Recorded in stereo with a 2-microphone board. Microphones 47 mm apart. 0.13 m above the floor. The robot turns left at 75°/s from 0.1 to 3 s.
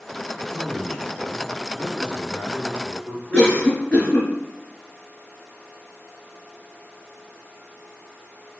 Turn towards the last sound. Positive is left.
turn(degrees=25)  # may be behind; listen again after turning